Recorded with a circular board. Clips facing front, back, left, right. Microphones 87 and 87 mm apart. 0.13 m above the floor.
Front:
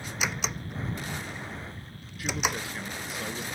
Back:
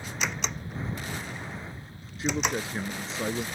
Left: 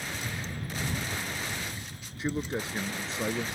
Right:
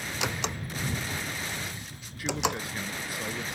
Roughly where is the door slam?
Right.